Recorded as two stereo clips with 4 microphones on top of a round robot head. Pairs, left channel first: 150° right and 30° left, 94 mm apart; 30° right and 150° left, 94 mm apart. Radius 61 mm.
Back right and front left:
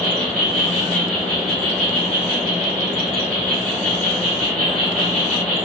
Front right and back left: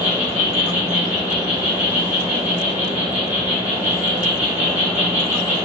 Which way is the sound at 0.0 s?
140° left.